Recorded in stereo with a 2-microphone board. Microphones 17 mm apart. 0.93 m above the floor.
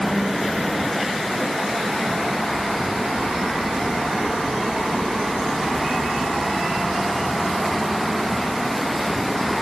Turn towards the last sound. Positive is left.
No sound to turn to.